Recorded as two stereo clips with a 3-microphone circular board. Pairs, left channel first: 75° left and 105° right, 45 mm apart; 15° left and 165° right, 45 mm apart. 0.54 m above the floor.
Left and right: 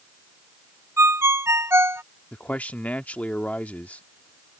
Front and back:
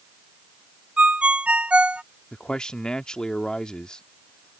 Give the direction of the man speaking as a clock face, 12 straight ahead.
10 o'clock.